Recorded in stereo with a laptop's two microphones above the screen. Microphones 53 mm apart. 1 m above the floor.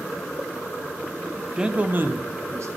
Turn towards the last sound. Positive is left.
turn(degrees=-70)  # may be behind; listen again after turning